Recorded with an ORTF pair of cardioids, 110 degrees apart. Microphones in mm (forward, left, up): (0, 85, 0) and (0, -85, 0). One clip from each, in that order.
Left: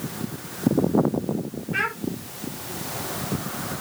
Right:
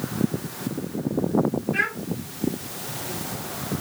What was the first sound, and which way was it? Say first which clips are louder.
A child speaking: left 1 dB; 15° left.